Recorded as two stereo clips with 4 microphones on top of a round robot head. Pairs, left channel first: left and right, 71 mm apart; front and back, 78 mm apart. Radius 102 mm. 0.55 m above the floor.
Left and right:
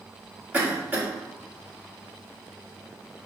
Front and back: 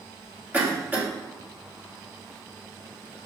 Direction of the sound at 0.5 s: 130° right.